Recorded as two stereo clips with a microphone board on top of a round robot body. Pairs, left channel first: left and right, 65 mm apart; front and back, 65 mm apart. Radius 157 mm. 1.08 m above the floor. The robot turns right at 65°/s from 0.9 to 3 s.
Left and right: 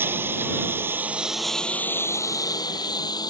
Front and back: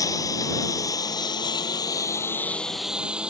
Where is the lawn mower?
30° right; by 3.3 s 105° left.